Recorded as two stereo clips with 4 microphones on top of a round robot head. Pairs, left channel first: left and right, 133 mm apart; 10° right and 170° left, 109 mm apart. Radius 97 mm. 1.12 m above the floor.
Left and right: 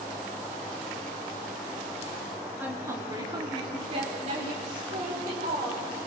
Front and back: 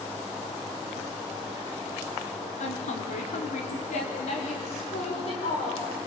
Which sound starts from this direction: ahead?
A woman speaking, at 2.6 s.